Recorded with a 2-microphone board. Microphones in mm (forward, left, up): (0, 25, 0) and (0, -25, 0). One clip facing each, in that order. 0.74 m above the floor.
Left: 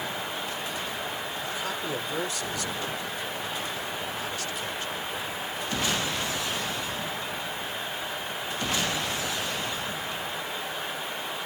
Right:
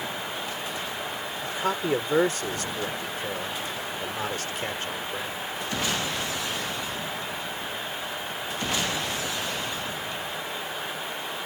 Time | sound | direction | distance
1.4 | a man speaking | 40° right (ahead or behind) | ?